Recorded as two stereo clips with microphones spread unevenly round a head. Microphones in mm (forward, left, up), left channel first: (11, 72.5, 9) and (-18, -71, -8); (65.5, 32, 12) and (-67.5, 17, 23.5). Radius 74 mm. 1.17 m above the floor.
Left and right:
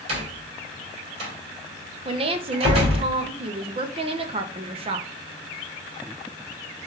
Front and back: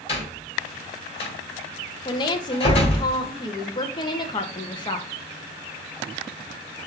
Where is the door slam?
50° right, 2.5 m.